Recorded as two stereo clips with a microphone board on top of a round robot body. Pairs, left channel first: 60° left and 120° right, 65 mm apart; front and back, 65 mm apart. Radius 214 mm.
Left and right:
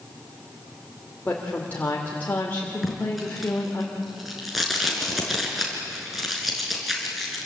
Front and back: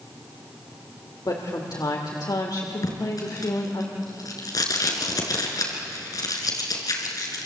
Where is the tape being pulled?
30° right, 4 m.